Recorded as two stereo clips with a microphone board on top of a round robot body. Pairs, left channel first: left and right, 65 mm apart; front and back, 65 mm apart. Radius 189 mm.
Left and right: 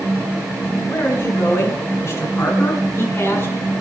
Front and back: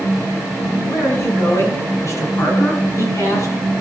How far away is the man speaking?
About 6.5 m.